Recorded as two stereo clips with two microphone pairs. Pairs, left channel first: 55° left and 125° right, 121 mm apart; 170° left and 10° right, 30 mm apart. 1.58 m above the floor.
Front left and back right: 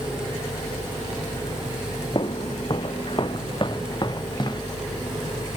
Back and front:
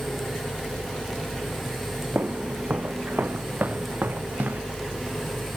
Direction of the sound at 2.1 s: 10° left.